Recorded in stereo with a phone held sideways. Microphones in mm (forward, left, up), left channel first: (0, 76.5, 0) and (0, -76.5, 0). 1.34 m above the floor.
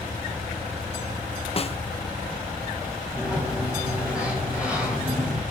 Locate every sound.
1.6 s a snare drum: 40° left (ahead or behind), 0.6 m
3.1 s a sliding door: 5° right (ahead or behind), 4 m